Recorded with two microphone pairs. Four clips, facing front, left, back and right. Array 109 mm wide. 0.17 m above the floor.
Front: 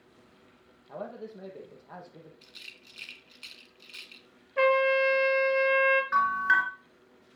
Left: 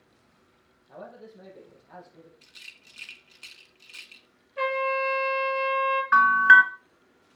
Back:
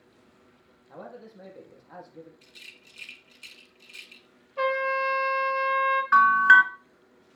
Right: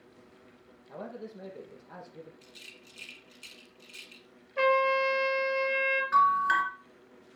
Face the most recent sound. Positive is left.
turn(degrees=125)